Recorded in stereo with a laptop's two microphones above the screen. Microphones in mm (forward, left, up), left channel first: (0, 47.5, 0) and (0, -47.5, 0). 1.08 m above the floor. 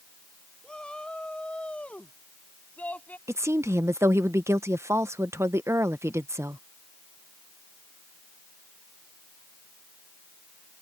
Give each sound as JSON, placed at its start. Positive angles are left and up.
{"t": 0.6, "sound": "a shout", "side_deg": 10}
{"t": 3.3, "sound": "a woman speaking", "side_deg": -30}